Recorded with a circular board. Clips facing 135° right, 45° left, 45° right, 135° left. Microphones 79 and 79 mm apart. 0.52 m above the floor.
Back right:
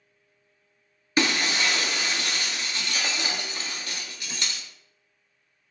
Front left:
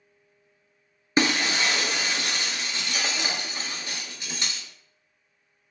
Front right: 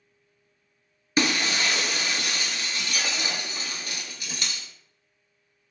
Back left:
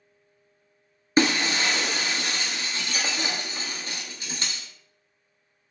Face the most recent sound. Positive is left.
turn(degrees=95)